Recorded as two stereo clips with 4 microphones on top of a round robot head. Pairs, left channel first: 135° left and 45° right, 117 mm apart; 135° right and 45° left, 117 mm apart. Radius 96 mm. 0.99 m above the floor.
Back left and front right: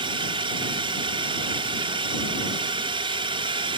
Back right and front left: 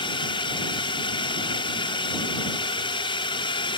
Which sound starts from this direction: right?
A drone, at 0.0 s.